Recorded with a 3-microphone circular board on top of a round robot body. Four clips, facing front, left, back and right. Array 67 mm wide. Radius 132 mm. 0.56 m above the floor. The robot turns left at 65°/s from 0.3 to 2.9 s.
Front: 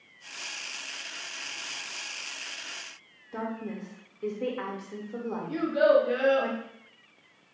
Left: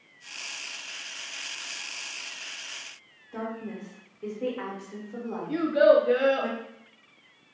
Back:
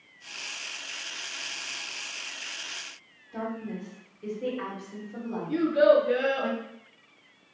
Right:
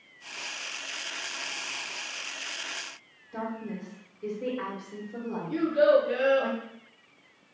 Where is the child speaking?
75° left, 2 m.